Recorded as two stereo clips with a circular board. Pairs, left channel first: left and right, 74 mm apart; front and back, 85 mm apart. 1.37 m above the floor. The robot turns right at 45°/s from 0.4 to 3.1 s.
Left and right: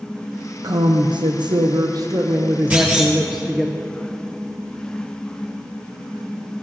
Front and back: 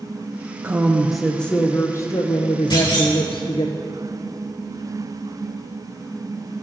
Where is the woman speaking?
115° right, 0.6 m; by 3.7 s 5° right, 0.6 m.